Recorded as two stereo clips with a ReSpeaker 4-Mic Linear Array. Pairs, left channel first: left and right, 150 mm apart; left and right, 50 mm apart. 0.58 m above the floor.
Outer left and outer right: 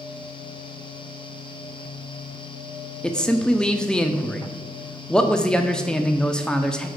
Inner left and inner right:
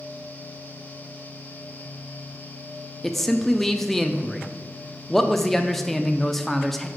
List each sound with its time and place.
3.0 s a man speaking: 5° left (ahead or behind), 0.6 m